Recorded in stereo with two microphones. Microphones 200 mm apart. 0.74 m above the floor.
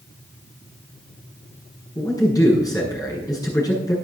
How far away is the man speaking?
About 7 m.